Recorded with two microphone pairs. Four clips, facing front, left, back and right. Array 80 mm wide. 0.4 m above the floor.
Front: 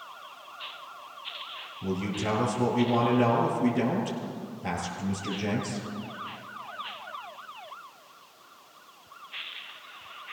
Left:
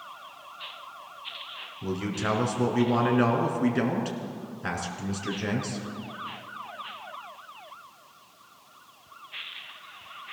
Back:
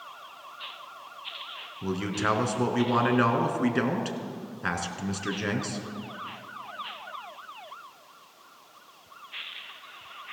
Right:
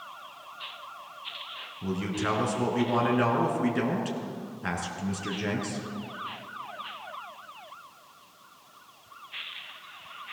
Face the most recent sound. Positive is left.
turn(degrees=180)